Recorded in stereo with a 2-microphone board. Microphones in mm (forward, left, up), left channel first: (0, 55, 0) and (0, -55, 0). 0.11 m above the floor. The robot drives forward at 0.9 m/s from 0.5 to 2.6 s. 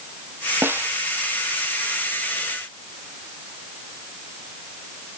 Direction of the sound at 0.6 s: 25° right (ahead or behind).